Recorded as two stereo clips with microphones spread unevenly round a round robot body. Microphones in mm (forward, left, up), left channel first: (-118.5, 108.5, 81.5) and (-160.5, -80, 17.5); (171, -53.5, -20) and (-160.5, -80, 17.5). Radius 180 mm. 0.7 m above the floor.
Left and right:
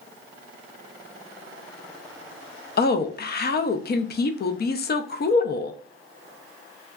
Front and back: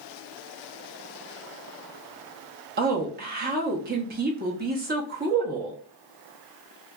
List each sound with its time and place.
2.8 s a woman speaking: 125° left, 0.5 m